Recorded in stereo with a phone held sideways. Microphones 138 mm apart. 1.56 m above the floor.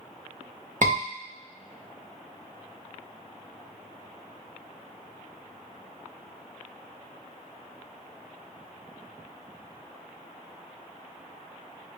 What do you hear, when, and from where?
0.8 s a scream: 65° right (ahead or behind), 1.6 m